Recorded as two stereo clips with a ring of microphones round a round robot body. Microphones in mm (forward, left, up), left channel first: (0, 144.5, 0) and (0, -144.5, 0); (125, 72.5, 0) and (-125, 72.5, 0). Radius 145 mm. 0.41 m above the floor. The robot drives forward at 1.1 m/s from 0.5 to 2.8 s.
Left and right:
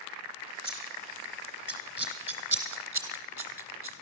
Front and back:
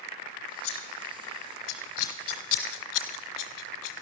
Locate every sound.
0.6 s scissors: 5° right, 4.5 m; by 4.0 s 10° right, 2 m